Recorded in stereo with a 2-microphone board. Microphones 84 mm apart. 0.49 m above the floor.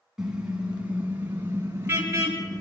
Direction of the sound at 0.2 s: 10° right (ahead or behind).